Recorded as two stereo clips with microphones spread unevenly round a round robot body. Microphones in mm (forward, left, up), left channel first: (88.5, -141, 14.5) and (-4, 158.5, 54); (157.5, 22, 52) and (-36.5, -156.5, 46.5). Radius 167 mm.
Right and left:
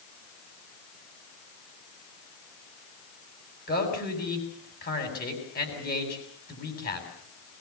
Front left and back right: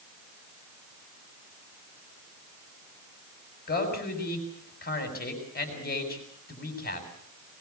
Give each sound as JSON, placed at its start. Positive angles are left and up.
{"t": 3.7, "sound": "a man speaking", "azimuth_deg": -10, "distance_m": 7.5}